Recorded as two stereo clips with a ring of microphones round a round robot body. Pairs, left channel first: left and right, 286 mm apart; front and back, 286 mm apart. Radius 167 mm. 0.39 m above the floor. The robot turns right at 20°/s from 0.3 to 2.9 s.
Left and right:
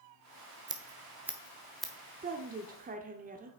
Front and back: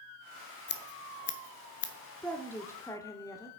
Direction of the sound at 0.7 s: 20° right.